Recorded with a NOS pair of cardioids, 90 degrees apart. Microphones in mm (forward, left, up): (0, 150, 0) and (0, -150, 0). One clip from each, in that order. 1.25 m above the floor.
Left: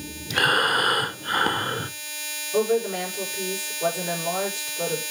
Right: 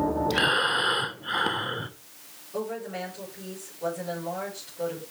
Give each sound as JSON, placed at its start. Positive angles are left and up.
{"t": 0.3, "sound": "breathing", "azimuth_deg": 15, "distance_m": 0.5}
{"t": 2.5, "sound": "a woman speaking", "azimuth_deg": 60, "distance_m": 5.5}